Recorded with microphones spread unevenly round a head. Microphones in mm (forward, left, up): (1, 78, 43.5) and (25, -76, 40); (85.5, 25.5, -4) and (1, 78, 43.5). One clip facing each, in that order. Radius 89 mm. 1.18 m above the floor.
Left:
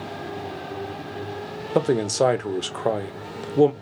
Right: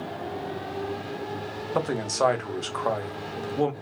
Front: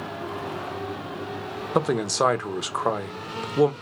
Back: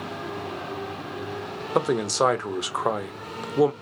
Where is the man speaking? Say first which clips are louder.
Left 6 dB, even; 45° left, 0.8 m.